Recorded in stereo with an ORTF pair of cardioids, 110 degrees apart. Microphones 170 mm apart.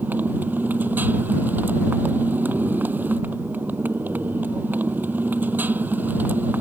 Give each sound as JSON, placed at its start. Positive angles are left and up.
{"t": 0.0, "sound": "a motorcycle", "azimuth_deg": -10}